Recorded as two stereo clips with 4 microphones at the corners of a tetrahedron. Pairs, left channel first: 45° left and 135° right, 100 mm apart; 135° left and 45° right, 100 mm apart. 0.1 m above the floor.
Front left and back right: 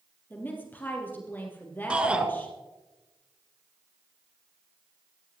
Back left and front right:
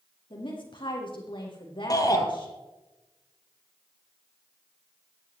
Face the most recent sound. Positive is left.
turn(degrees=150)